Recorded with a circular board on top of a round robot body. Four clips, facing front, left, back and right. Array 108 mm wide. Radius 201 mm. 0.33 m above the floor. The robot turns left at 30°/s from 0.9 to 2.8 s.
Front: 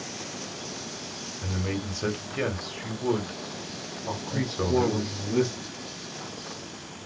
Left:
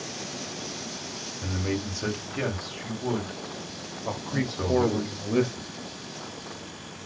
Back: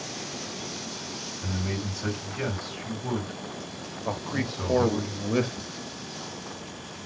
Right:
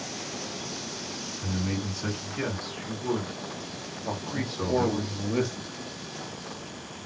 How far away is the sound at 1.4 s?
About 1.6 m.